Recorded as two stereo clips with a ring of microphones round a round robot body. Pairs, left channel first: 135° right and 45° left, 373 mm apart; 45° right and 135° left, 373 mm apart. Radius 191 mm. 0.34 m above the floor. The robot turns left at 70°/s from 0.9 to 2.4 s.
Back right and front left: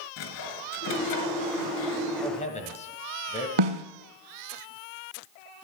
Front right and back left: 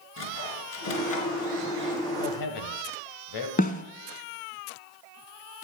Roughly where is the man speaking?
Ahead right.